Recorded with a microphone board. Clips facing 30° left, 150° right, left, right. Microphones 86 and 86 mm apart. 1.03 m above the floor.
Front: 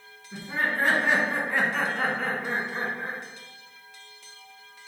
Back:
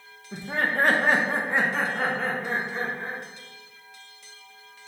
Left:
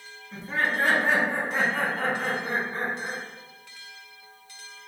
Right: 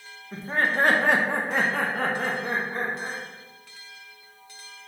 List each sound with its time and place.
0.3 s laughter: 145° right, 0.8 m; by 3.2 s 45° right, 1.4 m